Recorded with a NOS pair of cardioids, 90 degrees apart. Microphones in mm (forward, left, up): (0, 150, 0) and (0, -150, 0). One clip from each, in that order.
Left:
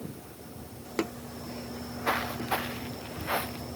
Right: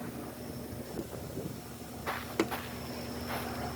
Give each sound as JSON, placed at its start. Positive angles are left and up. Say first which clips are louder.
{"t": 1.7, "sound": "footsteps", "louder": "left 9 dB", "azimuth_deg": 50}